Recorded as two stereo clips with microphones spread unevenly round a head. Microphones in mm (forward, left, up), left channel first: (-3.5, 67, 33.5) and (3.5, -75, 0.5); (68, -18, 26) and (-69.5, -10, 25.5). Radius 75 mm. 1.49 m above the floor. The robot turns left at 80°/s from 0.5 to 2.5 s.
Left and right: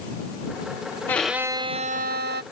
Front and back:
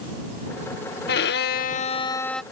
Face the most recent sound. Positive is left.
turn(degrees=-100)